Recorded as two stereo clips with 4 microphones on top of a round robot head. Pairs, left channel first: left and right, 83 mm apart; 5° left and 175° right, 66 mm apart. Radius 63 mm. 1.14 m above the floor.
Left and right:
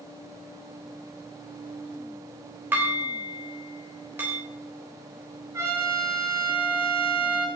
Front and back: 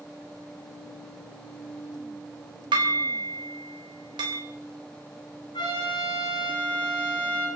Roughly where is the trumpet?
Ahead right.